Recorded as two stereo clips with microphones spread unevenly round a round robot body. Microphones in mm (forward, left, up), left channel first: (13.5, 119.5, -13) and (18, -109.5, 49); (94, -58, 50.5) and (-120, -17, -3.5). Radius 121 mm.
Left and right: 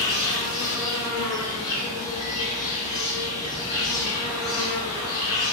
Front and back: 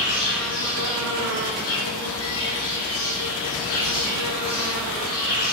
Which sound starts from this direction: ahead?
An insect, at 0.0 s.